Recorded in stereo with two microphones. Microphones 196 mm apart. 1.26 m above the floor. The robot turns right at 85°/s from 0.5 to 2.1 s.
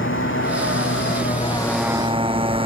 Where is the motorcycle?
70° left; by 2.7 s 155° right.